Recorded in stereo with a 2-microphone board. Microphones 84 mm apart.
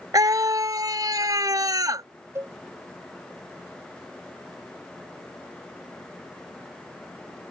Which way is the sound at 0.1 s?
45° right (ahead or behind).